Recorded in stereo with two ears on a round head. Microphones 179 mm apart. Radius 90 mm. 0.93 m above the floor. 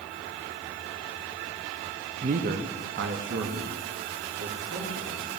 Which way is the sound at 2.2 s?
30° right (ahead or behind).